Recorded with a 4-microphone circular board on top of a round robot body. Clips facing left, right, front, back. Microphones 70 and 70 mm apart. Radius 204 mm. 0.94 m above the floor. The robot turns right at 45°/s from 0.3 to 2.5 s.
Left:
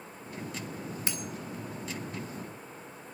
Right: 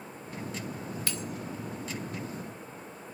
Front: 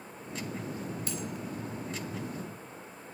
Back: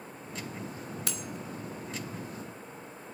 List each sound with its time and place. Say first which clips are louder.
1.1 s cutlery clinking: even, front 2 dB; 160° left, 1.5 m; by 1.2 s 170° left, 1.5 m